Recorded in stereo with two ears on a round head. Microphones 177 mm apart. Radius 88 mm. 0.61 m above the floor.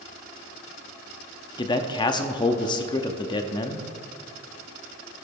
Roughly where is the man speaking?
Left.